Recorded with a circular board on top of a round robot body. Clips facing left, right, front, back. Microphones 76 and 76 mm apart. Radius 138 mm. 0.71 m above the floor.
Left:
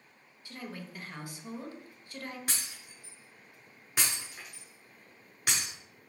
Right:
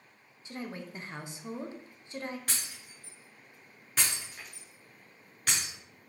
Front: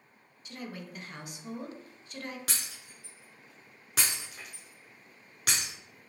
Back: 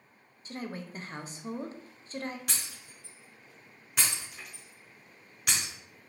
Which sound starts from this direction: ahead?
Breaking glass, at 2.5 s.